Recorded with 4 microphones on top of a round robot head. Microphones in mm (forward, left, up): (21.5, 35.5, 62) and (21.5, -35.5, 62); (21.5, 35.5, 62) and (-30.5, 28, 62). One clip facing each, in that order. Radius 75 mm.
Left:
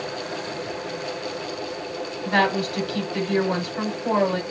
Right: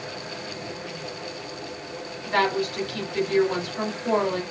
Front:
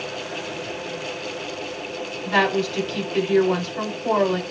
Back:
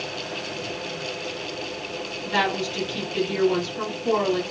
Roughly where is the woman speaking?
Ahead left.